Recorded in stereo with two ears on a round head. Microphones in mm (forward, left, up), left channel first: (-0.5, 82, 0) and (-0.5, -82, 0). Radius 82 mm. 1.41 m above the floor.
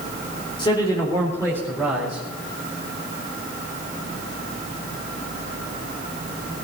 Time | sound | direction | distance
0.6 | a man speaking | 25° left (ahead or behind) | 3.5 m